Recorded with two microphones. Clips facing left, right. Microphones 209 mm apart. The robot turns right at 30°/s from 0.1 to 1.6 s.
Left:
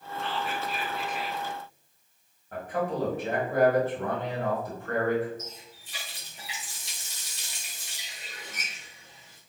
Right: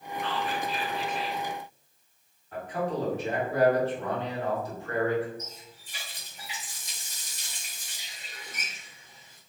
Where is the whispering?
115° right, 1.5 m; by 1.4 s 80° right, 1.5 m.